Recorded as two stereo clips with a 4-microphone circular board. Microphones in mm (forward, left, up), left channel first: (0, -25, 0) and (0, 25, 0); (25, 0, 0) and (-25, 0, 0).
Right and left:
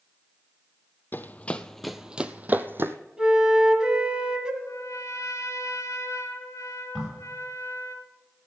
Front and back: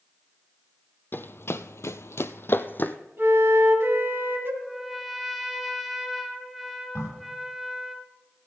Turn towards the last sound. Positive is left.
turn(degrees=15)